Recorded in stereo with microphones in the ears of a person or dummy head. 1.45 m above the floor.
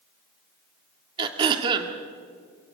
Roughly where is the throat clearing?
Right.